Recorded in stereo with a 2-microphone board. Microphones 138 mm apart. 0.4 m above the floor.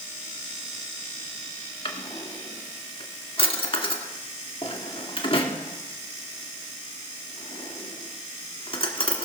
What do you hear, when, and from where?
1.9 s a drawer: 40° left (ahead or behind), 1.7 m